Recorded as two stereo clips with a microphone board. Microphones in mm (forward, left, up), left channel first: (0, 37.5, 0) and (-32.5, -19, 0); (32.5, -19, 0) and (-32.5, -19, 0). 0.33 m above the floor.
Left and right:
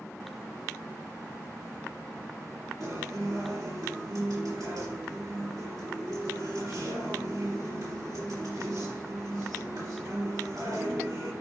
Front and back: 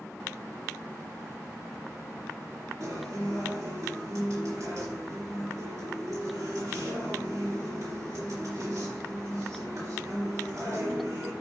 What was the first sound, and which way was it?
A guitar, 140° right.